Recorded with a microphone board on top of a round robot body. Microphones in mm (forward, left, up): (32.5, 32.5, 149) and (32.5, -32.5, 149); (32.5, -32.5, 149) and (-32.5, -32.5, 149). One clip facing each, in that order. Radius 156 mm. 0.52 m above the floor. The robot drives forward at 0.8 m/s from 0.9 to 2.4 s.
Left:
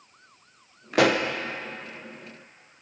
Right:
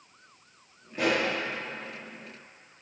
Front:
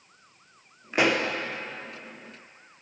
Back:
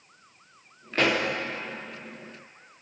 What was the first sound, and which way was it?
A pop, 70° left.